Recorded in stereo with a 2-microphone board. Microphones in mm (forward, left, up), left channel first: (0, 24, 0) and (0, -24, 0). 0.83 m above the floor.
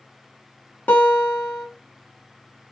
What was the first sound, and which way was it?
A guitar, 35° left (ahead or behind).